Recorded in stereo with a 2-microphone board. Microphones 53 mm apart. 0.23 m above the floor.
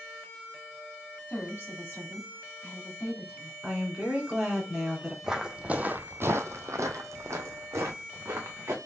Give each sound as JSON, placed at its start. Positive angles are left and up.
{"t": 1.3, "sound": "a woman speaking", "side_deg": 35, "distance_m": 2.0}
{"t": 3.6, "sound": "a woman speaking", "side_deg": -15, "distance_m": 2.5}
{"t": 5.2, "sound": "footsteps", "side_deg": -10, "distance_m": 0.8}